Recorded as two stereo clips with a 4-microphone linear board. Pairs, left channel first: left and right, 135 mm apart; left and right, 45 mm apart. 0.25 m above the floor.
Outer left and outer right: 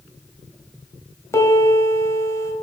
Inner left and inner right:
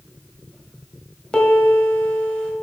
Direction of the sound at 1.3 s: 20° left (ahead or behind).